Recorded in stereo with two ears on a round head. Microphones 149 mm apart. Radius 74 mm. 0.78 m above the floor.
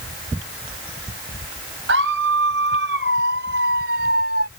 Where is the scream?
80° right; by 4.5 s 65° right (ahead or behind).